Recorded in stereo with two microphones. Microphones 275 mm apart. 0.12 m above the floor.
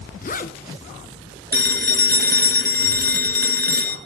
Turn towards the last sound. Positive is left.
turn(degrees=-35)  # may be behind; listen again after turning